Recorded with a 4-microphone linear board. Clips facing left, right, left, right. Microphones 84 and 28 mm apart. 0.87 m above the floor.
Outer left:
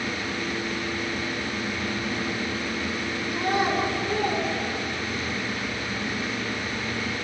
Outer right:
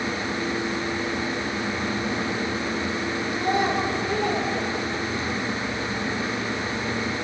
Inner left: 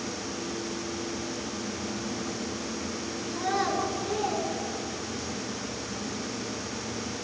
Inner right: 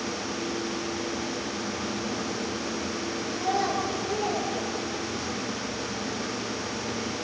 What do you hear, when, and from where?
3.3 s a child speaking: 65° left (ahead or behind), 10 m; by 5.3 s 70° left (ahead or behind), 7.5 m